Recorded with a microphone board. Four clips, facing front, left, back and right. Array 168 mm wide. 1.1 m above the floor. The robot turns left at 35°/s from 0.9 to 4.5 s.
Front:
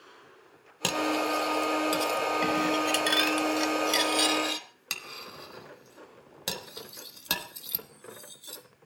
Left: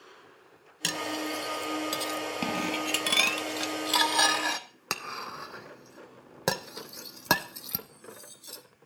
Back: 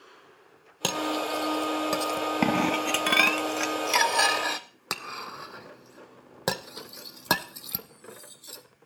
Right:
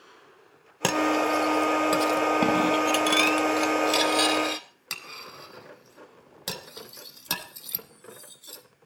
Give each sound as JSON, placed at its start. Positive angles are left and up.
{"t": 0.8, "sound": "cutlery clinking", "azimuth_deg": -100, "distance_m": 0.9}